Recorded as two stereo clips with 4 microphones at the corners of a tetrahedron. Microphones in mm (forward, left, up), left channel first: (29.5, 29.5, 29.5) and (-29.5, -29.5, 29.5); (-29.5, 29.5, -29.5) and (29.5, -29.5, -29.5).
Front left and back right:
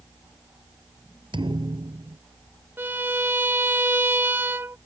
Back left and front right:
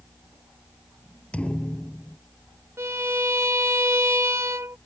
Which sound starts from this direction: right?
A violin, at 2.8 s.